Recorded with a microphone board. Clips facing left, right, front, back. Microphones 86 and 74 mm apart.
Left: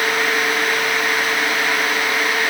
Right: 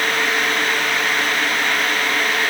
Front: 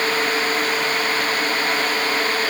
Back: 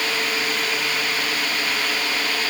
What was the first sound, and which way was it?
Only background noise.